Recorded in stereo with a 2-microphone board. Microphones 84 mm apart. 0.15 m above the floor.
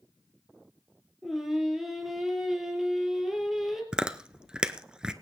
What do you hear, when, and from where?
1.2 s singing: 5° right (ahead or behind), 3 m
3.9 s chewing: 10° right (ahead or behind), 0.9 m